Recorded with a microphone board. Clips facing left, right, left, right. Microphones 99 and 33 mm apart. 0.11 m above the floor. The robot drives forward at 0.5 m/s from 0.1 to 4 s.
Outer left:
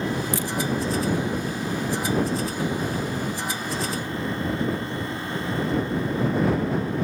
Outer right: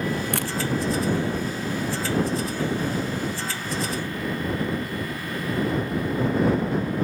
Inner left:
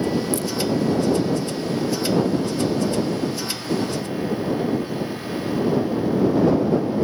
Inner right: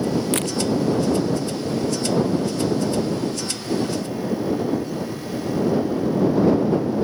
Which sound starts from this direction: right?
A camera shutter, at 0.3 s.